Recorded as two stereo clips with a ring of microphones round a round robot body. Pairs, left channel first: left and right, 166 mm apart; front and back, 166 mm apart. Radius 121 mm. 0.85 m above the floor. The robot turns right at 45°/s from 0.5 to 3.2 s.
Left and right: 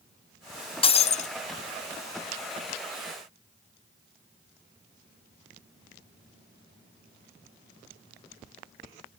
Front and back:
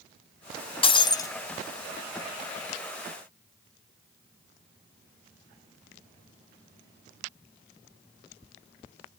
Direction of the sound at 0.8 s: 45° left.